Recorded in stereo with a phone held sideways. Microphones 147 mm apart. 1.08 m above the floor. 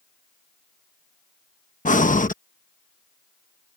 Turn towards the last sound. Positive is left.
turn(degrees=65)  # may be behind; listen again after turning